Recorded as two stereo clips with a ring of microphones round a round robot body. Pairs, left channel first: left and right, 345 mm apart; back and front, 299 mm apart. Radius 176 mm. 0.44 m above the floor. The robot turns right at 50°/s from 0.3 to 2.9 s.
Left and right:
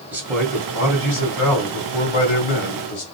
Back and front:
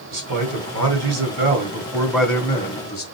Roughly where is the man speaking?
Ahead.